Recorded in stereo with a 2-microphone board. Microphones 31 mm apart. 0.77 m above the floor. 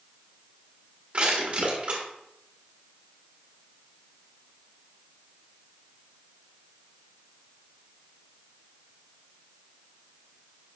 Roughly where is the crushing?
Right.